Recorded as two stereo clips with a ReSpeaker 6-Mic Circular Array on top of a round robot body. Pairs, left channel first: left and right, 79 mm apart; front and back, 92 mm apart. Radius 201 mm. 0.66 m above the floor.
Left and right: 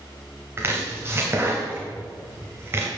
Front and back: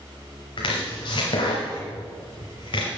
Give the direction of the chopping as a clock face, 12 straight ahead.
1 o'clock.